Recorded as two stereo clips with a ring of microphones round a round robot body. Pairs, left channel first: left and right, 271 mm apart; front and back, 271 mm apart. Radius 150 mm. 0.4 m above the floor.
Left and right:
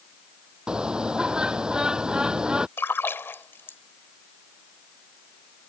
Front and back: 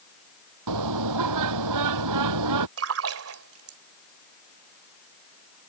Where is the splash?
170° left.